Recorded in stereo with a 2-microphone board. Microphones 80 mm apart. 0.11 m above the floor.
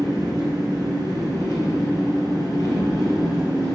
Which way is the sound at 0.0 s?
45° left (ahead or behind).